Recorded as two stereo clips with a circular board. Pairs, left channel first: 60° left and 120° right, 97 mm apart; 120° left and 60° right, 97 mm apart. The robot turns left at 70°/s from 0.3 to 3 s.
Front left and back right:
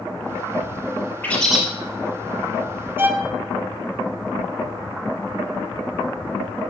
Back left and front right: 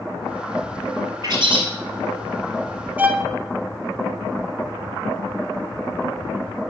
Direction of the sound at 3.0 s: 105° right.